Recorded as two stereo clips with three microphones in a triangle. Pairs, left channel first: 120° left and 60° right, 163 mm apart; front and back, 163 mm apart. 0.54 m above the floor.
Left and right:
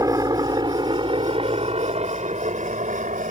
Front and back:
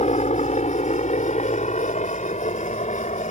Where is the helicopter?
Straight ahead; by 3.3 s 35° right.